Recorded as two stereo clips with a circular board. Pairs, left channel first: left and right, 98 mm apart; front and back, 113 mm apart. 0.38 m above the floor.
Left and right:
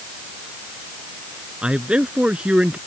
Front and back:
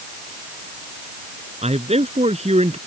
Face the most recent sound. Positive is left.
turn(degrees=-170)